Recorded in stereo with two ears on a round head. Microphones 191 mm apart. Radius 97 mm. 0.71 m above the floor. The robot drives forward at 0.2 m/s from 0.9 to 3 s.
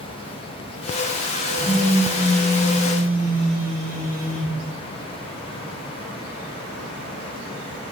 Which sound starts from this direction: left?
A phone buzzing, at 1.6 s.